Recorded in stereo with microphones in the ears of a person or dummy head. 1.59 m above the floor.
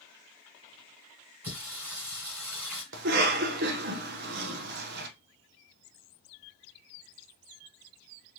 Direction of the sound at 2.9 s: 60° right (ahead or behind).